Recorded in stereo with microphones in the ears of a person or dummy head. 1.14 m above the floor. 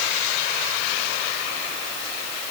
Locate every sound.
Only background noise.